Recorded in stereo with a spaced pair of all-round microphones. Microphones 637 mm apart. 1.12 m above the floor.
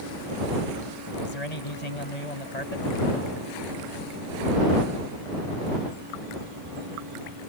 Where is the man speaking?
80° left.